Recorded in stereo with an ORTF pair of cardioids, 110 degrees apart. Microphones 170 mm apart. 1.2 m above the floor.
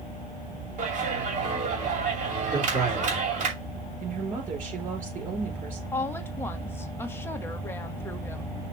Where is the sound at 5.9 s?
15° left, 1.2 m.